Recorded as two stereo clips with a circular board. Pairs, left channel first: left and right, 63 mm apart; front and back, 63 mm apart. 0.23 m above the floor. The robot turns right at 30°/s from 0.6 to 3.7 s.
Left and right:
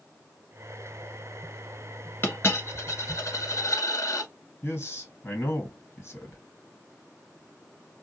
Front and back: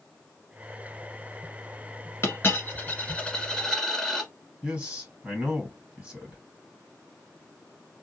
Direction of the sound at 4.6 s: 110° left.